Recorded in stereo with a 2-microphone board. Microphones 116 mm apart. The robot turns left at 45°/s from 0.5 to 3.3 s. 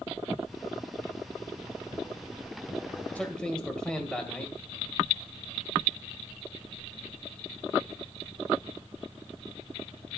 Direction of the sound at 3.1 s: 10° left (ahead or behind).